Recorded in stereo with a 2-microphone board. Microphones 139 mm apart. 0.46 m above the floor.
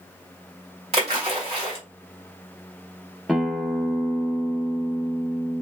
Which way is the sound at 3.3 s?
Centre (ahead or behind).